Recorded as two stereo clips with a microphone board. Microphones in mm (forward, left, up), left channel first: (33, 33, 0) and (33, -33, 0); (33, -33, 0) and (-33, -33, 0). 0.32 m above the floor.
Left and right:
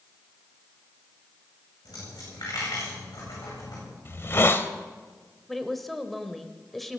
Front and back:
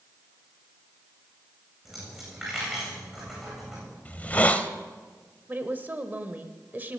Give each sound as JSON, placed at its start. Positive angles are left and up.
{"t": 1.9, "sound": "a dropped coin", "azimuth_deg": 100, "distance_m": 9.5}
{"t": 4.0, "sound": "a hiss", "azimuth_deg": 55, "distance_m": 1.0}
{"t": 5.5, "sound": "a woman speaking", "azimuth_deg": 175, "distance_m": 1.0}